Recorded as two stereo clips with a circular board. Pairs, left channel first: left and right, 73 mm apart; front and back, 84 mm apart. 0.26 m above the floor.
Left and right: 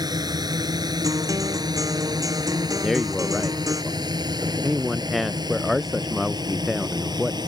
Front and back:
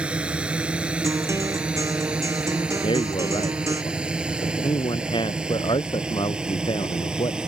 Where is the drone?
105° right; by 7.5 s 100° right.